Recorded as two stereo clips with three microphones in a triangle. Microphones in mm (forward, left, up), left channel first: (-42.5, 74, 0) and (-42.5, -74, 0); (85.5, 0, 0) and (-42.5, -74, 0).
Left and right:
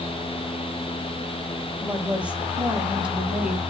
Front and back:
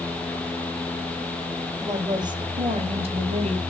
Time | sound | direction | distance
1.8 | a woman speaking | 160° right | 1.4 m